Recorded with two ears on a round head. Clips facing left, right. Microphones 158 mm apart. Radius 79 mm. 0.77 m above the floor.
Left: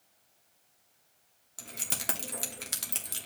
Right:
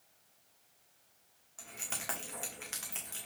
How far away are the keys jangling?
About 1.2 m.